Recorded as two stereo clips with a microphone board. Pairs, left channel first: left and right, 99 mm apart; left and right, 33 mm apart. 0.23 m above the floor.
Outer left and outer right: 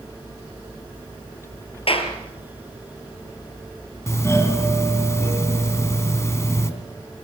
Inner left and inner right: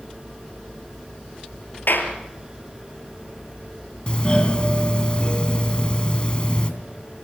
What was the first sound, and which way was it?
A clap, 70° left (ahead or behind).